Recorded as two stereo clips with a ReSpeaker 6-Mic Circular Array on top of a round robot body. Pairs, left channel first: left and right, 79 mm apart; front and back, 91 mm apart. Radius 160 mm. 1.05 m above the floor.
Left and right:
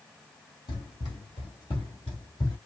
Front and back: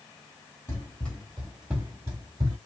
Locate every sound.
0.7 s running footsteps: 65° left, 1.5 m; by 2.6 s 145° left, 1.4 m